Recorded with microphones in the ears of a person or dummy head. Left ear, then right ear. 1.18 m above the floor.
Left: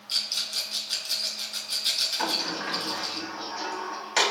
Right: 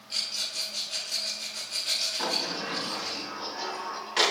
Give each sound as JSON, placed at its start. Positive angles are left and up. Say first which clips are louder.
{"t": 0.1, "sound": "a rattle", "louder": "left 3 dB", "side_deg": 70, "distance_m": 2.5}
{"t": 2.2, "sound": "a sliding door", "louder": "left 2 dB", "side_deg": 55, "distance_m": 1.9}